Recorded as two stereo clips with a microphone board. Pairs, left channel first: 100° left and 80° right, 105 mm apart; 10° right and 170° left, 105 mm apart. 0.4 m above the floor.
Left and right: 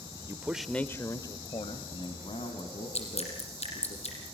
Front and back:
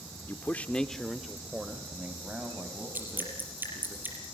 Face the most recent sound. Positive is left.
turn(degrees=100)